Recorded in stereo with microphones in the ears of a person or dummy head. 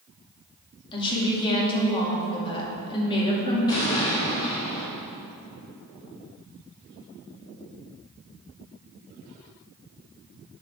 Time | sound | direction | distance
0.9 | a woman speaking | 25° left (ahead or behind) | 2.5 m
3.7 | an explosion | 25° left (ahead or behind) | 2.5 m